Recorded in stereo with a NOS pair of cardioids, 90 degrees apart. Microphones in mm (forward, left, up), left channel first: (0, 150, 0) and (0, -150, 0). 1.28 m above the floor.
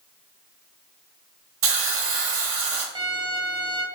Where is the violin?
15° right, 0.6 m.